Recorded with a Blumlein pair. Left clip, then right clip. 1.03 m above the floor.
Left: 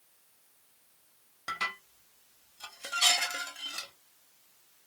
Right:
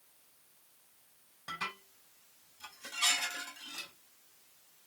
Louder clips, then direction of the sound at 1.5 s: Left 6 dB; 60° left.